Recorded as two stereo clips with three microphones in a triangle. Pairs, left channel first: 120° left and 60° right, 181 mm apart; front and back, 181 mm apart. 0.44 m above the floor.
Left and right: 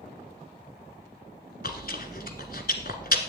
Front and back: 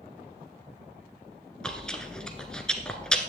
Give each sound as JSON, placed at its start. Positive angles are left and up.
{"t": 1.6, "sound": "chewing", "azimuth_deg": 85, "distance_m": 1.3}